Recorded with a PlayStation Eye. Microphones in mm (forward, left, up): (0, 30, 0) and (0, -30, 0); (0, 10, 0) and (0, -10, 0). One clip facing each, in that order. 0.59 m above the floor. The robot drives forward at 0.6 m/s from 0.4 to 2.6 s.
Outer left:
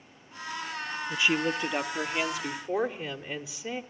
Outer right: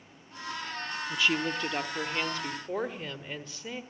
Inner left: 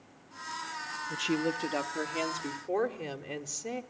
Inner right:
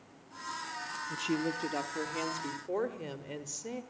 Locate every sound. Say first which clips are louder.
1.1 s a woman speaking: outer left 2 dB, inner left 3 dB; 20° left (ahead or behind), 0.7 m; by 3.8 s 10° left (ahead or behind), 1.5 m